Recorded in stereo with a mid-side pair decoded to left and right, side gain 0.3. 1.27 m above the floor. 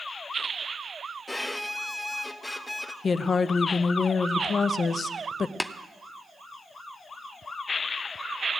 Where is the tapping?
15° left, 0.9 m.